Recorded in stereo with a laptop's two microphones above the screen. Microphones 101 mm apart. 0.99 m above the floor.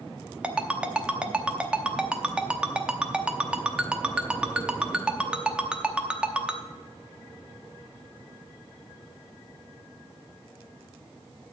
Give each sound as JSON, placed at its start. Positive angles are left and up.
{"t": 0.4, "sound": "a ringtone", "side_deg": -10, "distance_m": 0.7}